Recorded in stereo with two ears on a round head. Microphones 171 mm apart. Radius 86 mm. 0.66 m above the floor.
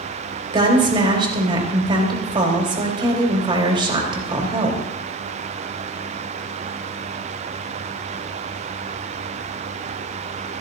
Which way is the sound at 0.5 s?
25° right (ahead or behind).